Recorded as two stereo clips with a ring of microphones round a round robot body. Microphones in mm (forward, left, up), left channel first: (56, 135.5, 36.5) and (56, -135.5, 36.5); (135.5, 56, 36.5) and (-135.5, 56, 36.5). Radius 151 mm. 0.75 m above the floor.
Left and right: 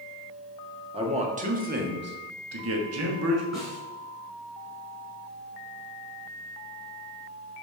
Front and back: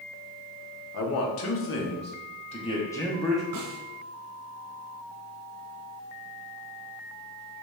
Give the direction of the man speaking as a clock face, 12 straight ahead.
1 o'clock.